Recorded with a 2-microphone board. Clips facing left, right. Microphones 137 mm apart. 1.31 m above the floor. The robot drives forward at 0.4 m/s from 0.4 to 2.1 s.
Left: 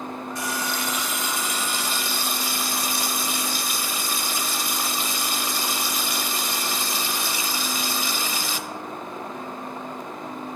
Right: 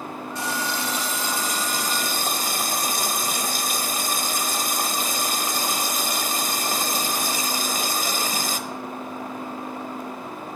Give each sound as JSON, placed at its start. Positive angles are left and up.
{"t": 0.3, "sound": "a running tap", "side_deg": -25, "distance_m": 1.5}